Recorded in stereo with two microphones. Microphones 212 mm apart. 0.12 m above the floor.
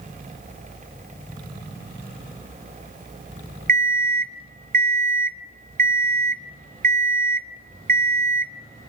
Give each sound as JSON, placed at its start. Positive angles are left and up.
{"t": 3.7, "sound": "an alarm clock", "side_deg": -45, "distance_m": 0.7}